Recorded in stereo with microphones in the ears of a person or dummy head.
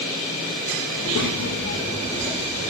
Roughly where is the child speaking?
Left.